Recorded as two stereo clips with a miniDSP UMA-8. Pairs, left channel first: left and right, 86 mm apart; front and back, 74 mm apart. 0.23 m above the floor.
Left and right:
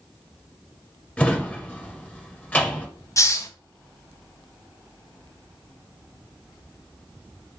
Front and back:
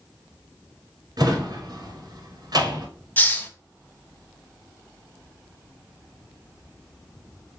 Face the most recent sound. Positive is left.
turn(degrees=55)